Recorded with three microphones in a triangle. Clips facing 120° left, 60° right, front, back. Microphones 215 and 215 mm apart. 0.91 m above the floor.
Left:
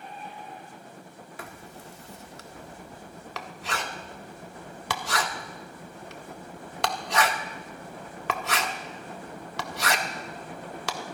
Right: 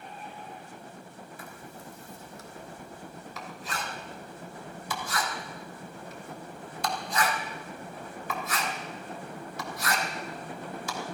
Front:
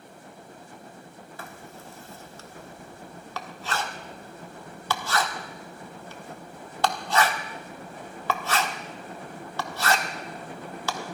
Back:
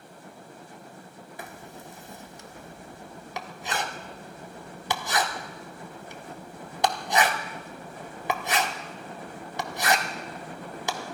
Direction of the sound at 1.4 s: 110° left.